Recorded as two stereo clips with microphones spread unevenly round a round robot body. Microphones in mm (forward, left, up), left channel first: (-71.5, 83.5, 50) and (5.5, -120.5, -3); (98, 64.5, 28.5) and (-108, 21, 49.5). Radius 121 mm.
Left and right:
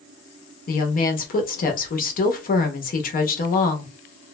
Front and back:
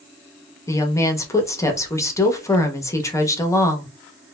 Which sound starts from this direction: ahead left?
A woman speaking, at 0.7 s.